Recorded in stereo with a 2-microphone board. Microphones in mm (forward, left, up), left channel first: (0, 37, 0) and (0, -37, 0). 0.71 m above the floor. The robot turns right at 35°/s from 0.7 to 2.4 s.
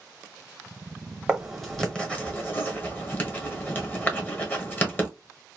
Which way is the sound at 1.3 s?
10° right (ahead or behind).